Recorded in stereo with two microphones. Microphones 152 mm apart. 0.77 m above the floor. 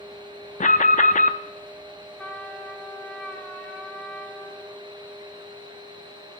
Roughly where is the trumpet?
Centre.